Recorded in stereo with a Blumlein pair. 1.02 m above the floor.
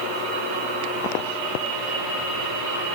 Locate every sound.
Only background noise.